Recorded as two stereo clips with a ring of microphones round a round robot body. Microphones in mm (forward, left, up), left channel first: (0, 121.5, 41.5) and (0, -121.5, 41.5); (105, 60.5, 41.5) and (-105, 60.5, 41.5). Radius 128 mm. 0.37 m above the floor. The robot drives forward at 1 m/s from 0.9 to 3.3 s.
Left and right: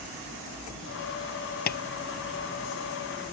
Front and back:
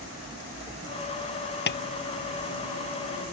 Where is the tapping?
35° left.